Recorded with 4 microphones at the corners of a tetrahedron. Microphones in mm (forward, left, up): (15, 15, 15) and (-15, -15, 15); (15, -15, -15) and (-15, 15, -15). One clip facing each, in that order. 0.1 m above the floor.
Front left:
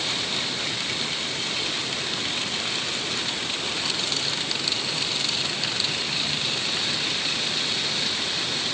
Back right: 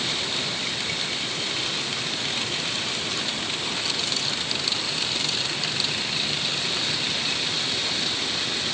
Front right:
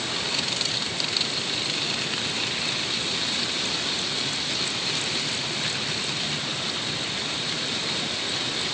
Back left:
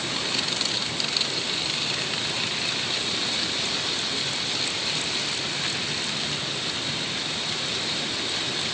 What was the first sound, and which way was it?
Only background noise.